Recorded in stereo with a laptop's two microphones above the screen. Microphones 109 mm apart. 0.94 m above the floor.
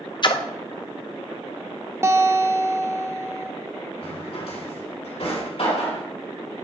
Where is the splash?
45° left (ahead or behind), 0.5 m.